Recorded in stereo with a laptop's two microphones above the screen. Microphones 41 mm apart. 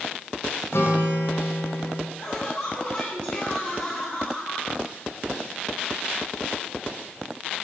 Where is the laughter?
30° left (ahead or behind), 8 m.